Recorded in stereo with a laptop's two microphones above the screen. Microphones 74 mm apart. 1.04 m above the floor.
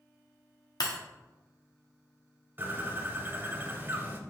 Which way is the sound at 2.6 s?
30° right (ahead or behind).